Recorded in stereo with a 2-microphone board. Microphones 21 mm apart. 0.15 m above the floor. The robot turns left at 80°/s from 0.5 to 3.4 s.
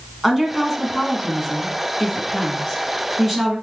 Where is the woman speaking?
5° right (ahead or behind), 1.3 m; by 3.5 s 15° right (ahead or behind), 1.3 m.